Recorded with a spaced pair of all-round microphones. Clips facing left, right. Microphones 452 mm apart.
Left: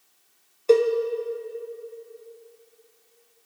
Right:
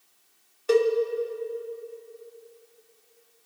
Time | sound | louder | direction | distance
0.7 | a cowbell | left 3 dB | 30° right (ahead or behind) | 0.7 m